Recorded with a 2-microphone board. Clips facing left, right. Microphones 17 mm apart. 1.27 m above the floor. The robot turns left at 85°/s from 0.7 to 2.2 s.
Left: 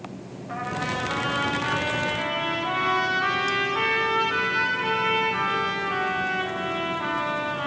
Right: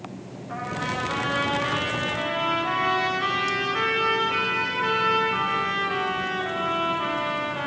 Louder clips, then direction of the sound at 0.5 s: Left 1 dB; 25° left.